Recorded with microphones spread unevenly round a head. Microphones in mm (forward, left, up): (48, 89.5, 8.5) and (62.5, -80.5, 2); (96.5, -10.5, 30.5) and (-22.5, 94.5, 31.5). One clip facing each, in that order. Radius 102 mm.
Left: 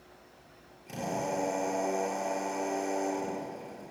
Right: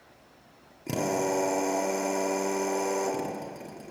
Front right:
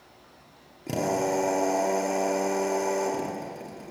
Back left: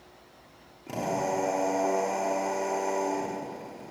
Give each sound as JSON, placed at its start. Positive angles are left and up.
{"t": 0.9, "sound": "a drill", "azimuth_deg": -100, "distance_m": 2.5}